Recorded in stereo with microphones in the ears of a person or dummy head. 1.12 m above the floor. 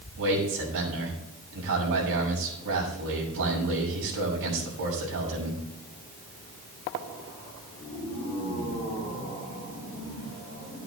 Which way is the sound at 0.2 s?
65° right (ahead or behind).